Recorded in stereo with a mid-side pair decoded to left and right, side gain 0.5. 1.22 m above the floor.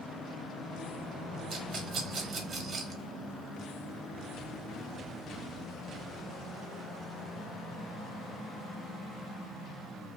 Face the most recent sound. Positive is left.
turn(degrees=-60)